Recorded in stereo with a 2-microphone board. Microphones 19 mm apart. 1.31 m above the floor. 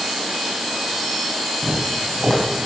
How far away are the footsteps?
About 4 m.